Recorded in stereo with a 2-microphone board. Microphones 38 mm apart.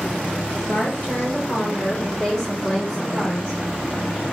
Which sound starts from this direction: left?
A woman speaking, at 0.7 s.